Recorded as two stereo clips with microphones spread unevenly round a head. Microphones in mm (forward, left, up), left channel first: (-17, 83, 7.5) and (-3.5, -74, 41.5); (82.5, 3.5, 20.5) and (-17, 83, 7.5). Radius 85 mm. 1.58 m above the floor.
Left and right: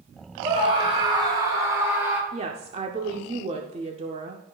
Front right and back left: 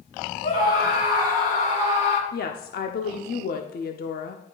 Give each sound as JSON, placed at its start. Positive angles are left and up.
{"t": 0.4, "sound": "a scream", "azimuth_deg": -25, "distance_m": 3.0}
{"t": 2.3, "sound": "a woman speaking", "azimuth_deg": -25, "distance_m": 0.5}